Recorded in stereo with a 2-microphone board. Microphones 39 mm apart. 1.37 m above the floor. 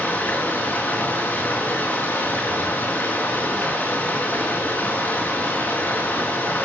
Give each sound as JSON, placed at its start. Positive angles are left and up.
{"t": 0.0, "sound": "running water", "side_deg": 55, "distance_m": 5.5}